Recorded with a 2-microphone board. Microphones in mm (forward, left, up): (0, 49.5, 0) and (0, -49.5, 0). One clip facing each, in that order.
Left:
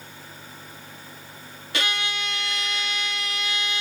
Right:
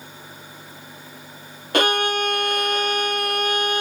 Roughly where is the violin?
Right.